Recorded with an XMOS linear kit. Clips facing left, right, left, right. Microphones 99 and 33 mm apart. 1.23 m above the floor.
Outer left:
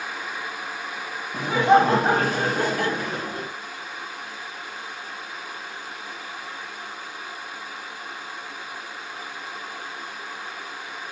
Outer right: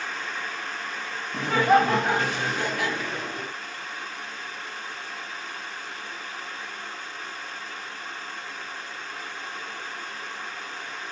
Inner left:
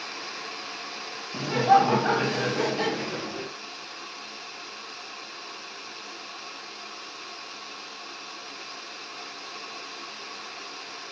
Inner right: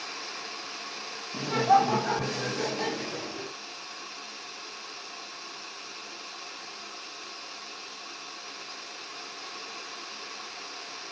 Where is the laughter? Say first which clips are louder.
Outer left 3 dB, inner left 3 dB; 5° left (ahead or behind), 0.6 m; by 3.5 s 40° left (ahead or behind), 1.3 m.